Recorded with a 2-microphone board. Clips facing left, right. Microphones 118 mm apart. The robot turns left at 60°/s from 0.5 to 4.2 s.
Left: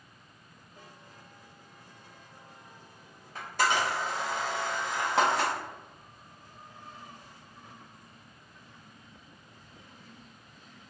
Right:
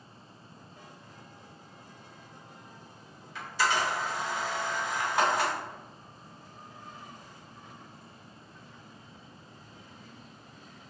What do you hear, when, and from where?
3.4 s a camera shutter: 40° left (ahead or behind), 1.2 m; by 5.5 s 80° left, 1.2 m